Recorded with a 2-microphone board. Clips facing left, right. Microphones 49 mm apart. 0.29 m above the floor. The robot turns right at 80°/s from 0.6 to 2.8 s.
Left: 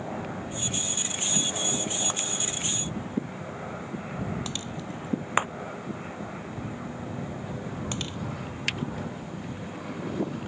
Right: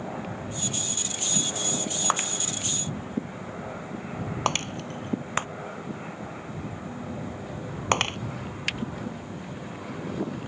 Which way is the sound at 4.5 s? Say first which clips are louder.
Right 7 dB; 60° right (ahead or behind).